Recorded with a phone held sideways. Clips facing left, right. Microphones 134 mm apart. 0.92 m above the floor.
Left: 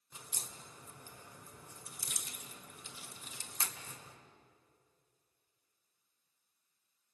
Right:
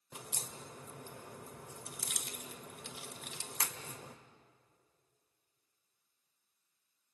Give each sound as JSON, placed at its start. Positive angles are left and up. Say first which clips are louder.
{"t": 0.1, "sound": "a crack", "louder": "right 5 dB", "side_deg": -70, "distance_m": 1.7}